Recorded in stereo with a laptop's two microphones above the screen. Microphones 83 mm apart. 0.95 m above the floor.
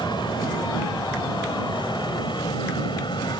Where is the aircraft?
70° left (ahead or behind); by 3.4 s 65° left (ahead or behind).